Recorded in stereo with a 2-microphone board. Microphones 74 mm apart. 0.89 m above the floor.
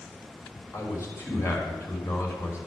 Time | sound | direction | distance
0.7 | a man speaking | 40° left (ahead or behind) | 3 m